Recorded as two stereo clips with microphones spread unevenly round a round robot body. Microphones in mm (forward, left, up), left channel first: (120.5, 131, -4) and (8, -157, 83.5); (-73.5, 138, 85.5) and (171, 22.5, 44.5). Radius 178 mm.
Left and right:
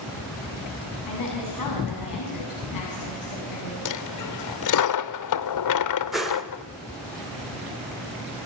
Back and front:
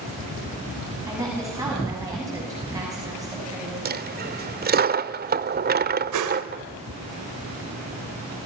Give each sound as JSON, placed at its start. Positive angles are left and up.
{"t": 1.1, "sound": "a woman speaking", "azimuth_deg": 55, "distance_m": 7.0}
{"t": 3.9, "sound": "a dropped coin", "azimuth_deg": 35, "distance_m": 0.9}
{"t": 6.1, "sound": "a whoosh", "azimuth_deg": -20, "distance_m": 1.8}